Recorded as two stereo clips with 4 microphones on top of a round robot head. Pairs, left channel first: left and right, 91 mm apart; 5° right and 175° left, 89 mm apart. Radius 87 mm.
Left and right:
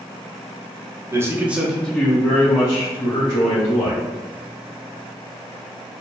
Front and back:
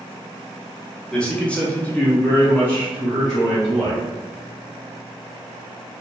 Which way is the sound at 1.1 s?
75° right.